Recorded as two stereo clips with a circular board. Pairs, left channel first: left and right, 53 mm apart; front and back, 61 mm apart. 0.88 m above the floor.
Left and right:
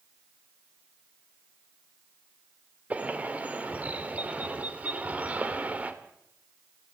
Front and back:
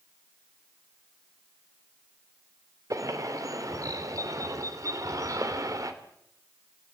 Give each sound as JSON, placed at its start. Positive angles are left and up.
{"t": 2.9, "sound": "a bird", "azimuth_deg": -155, "distance_m": 2.5}